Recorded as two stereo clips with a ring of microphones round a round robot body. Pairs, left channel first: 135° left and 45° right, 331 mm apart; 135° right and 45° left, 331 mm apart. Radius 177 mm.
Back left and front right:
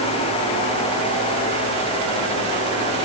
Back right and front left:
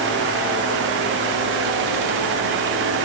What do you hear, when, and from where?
Only background noise.